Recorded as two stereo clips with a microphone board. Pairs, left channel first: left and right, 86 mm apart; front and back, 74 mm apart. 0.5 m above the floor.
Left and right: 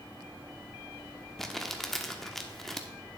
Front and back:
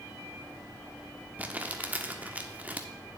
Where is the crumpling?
170° left, 0.8 m.